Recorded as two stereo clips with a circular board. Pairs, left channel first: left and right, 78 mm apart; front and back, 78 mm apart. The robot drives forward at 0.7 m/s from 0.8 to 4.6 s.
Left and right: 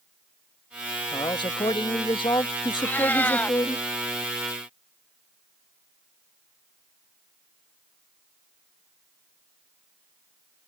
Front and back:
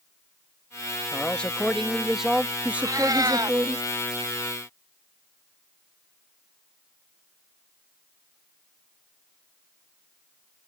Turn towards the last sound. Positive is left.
turn(degrees=165)